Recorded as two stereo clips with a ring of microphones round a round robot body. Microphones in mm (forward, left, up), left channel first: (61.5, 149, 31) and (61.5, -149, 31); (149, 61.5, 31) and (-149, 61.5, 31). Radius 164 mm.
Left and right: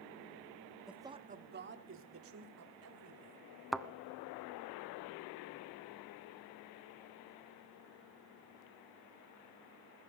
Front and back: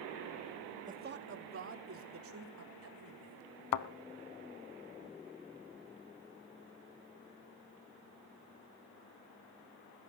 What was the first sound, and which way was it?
A man speaking, straight behind.